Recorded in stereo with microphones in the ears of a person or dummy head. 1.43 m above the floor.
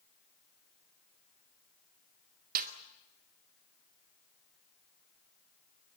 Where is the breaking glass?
I don't hear breaking glass.